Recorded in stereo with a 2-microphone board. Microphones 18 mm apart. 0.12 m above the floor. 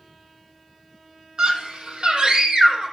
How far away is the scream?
About 4 m.